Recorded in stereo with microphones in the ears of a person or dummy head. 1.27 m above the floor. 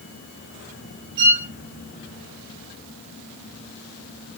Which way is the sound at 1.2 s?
65° right (ahead or behind).